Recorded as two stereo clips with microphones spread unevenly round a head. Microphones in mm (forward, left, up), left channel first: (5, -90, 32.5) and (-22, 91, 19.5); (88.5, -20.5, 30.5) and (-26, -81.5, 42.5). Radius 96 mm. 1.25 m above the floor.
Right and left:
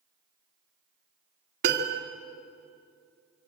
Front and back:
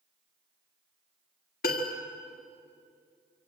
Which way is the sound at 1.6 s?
60° left.